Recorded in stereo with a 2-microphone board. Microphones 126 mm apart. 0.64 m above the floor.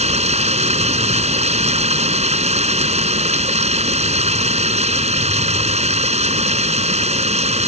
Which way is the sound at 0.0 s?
60° right (ahead or behind).